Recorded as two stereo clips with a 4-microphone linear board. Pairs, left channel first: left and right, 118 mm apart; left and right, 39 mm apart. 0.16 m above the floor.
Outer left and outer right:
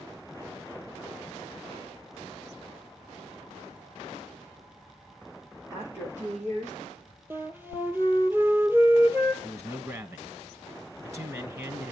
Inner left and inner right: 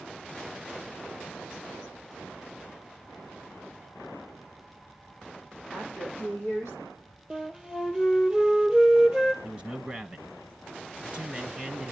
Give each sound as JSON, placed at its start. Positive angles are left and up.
{"t": 5.7, "sound": "a woman speaking", "side_deg": -75, "distance_m": 7.0}
{"t": 7.3, "sound": "a flute", "side_deg": -20, "distance_m": 1.4}
{"t": 9.4, "sound": "a man speaking", "side_deg": -25, "distance_m": 1.5}